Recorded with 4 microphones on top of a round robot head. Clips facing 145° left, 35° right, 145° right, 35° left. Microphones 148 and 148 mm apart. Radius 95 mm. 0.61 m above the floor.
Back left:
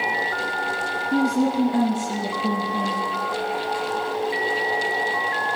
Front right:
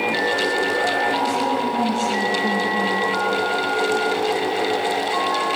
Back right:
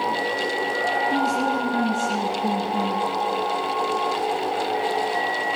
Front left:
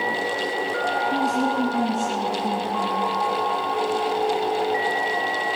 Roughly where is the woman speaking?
Right.